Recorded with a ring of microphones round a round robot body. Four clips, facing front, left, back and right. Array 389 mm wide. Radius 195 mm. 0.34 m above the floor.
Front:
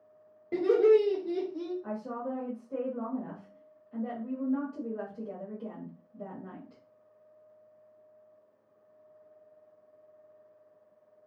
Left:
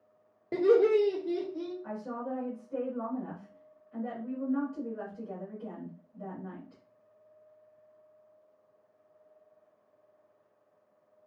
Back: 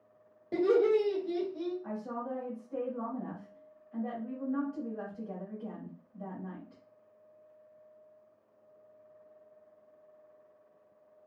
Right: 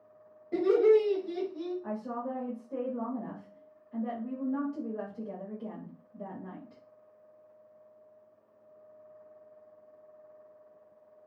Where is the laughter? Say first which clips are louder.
Even, front 3 dB; 80° left, 1.5 m; by 1.7 s 25° left, 1.5 m.